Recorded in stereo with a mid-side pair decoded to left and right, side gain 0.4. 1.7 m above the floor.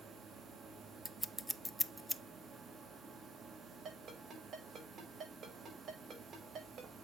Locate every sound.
0.0 s a machine running: 65° right, 2.5 m
1.1 s scissors: 5° left, 0.6 m
3.9 s a ringtone: 65° right, 5.5 m